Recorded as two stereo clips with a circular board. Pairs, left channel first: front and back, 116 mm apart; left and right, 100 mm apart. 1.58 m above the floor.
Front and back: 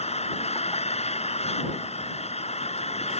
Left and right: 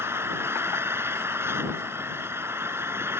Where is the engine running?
25° right.